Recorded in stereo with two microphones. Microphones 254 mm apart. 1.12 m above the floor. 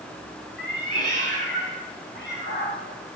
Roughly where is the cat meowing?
Left.